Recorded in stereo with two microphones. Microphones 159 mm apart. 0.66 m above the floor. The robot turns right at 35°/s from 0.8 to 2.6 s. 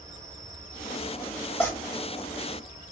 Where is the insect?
30° left, 3.5 m; by 2.9 s 90° left, 3.5 m.